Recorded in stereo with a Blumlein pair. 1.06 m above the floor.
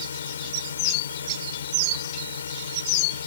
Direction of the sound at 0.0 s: 70° left.